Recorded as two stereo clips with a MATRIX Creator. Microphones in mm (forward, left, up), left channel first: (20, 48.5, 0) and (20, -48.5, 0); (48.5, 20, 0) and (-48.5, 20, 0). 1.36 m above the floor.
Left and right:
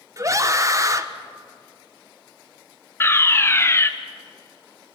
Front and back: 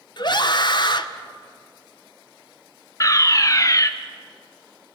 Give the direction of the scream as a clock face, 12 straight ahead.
1 o'clock.